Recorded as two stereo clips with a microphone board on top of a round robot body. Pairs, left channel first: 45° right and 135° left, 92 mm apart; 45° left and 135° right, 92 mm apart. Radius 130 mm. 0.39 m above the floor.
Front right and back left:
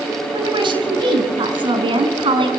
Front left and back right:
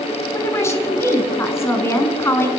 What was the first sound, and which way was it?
A woman speaking, 105° left.